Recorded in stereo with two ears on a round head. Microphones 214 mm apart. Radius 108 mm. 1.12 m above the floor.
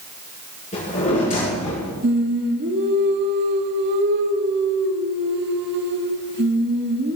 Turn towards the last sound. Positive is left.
turn(degrees=-45)  # may be behind; listen again after turning